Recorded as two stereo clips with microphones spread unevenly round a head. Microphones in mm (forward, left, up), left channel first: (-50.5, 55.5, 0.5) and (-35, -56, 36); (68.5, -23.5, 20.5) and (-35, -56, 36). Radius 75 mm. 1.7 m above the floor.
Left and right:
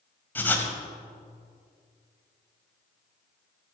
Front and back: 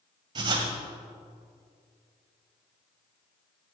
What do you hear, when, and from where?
0.3 s writing: 175° right, 1.9 m